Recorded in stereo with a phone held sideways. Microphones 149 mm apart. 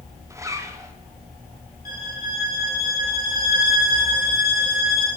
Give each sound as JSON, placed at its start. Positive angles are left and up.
{"t": 0.3, "sound": "a zipper", "side_deg": -20, "distance_m": 1.1}
{"t": 1.9, "sound": "a violin", "side_deg": 80, "distance_m": 5.5}